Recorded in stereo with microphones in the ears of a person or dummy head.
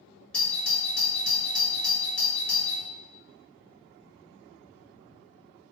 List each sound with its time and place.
0.3 s a doorbell: centre (ahead or behind), 0.7 m